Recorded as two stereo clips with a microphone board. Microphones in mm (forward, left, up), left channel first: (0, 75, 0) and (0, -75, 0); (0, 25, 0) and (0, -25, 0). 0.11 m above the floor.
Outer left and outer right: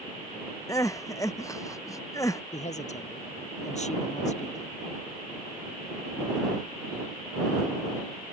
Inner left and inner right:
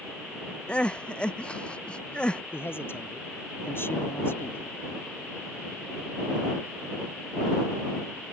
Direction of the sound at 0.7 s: 20° left (ahead or behind).